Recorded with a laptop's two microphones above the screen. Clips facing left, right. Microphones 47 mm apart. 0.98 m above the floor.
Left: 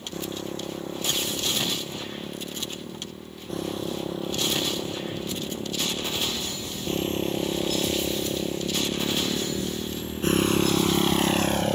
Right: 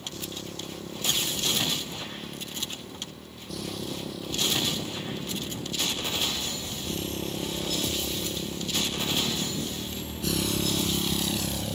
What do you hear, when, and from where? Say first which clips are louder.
0.0 s a motorcycle: left 5 dB; 30° left (ahead or behind); by 11.8 s 55° left (ahead or behind)